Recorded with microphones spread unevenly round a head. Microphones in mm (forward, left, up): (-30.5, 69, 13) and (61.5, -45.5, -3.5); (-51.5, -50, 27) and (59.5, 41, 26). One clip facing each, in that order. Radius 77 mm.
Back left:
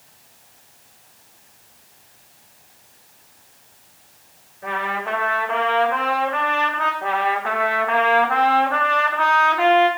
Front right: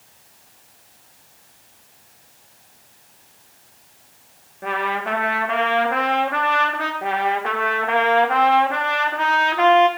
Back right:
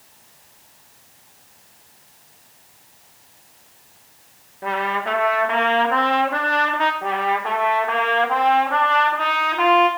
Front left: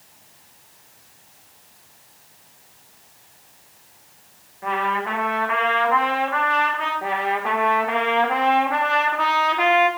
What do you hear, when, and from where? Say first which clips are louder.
4.6 s a trumpet: front right 2 dB, even; 90° right, 1.3 m
7.0 s a trumpet: front right 2 dB, back right 2 dB; 25° right, 1.0 m